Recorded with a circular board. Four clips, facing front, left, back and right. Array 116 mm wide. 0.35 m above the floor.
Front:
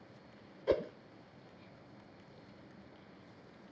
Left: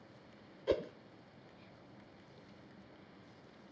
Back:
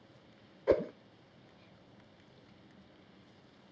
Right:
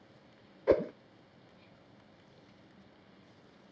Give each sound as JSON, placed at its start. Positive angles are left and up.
{"t": 0.7, "sound": "a whoosh", "azimuth_deg": -110}